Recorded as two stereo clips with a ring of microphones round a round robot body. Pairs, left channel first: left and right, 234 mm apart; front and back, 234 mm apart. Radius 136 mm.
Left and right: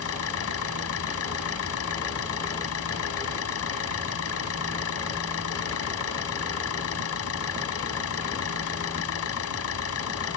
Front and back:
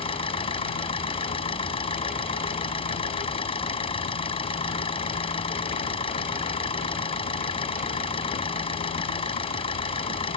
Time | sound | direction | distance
0.0 | an engine running | 70° left | ?